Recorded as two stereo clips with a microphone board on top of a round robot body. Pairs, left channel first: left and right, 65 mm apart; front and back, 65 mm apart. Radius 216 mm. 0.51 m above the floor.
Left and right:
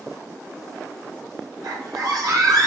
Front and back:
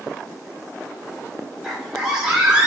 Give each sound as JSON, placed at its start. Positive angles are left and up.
{"t": 1.6, "sound": "a scream", "azimuth_deg": -95, "distance_m": 3.0}